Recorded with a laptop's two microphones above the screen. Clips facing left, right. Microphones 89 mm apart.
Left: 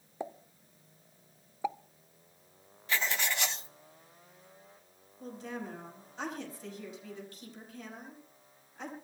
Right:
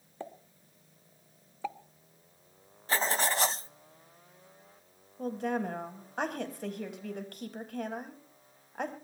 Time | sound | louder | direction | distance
0.2 | a pop | left 3 dB | 15° left (ahead or behind) | 0.8 m
2.9 | writing | right 4 dB | 40° right (ahead or behind) | 0.6 m
5.2 | a woman speaking | right 9 dB | 65° right (ahead or behind) | 5 m